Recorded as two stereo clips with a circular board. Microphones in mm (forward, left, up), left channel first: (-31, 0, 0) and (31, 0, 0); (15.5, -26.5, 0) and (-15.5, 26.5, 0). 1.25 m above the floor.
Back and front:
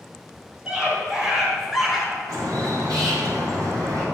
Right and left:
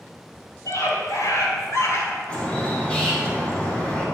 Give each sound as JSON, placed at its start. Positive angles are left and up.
{"t": 0.7, "sound": "a scream", "azimuth_deg": -65, "distance_m": 4.5}
{"t": 2.3, "sound": "a bird", "azimuth_deg": 10, "distance_m": 3.5}